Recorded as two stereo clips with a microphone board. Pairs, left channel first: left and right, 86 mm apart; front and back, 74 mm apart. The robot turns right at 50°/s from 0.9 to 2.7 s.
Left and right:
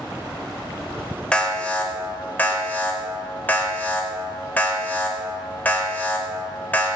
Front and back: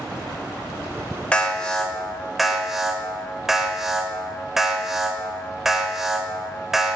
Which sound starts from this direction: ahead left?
An alarm, at 1.3 s.